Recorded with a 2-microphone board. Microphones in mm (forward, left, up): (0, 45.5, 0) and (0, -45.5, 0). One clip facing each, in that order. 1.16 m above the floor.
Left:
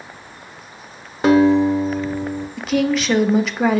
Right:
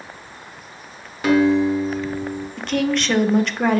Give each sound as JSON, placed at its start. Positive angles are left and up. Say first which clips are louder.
{"t": 1.2, "sound": "a guitar", "louder": "left 3 dB", "side_deg": 30, "distance_m": 0.9}
{"t": 2.6, "sound": "a woman speaking", "louder": "left 2 dB", "side_deg": 5, "distance_m": 0.6}